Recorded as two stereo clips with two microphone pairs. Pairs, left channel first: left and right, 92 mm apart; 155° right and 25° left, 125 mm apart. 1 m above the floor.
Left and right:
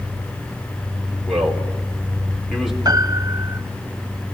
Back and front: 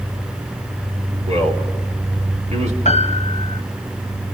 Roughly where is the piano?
Behind right.